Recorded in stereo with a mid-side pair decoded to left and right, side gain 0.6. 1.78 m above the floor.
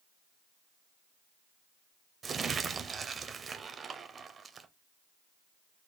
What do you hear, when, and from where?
2.2 s crumpling: 30° right, 0.6 m